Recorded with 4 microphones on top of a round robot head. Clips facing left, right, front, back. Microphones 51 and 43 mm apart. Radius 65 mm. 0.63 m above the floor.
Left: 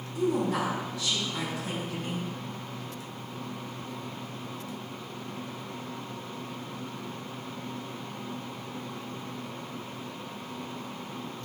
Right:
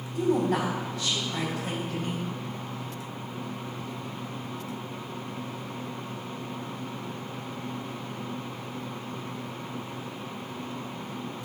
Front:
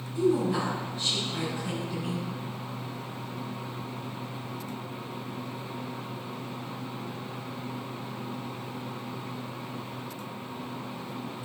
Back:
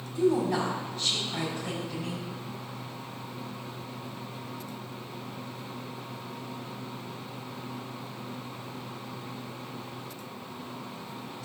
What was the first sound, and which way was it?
A woman speaking, 135° right.